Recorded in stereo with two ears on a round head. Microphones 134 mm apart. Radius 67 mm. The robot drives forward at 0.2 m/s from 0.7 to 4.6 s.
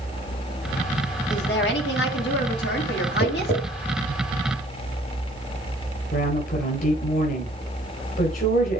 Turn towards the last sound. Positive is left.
turn(degrees=60)  # may be behind; listen again after turning